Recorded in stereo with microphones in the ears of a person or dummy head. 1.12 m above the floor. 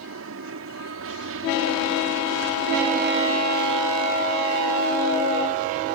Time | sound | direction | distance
0.0 | an aircraft | 60° right (ahead or behind) | ?